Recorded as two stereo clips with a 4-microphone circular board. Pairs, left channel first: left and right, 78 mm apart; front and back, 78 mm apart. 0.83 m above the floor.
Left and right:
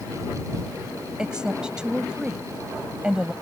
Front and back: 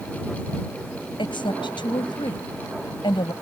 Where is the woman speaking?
10° right.